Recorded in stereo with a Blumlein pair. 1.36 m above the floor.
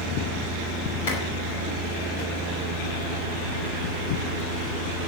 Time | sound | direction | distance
1.1 | a clap | 50° left | 5.5 m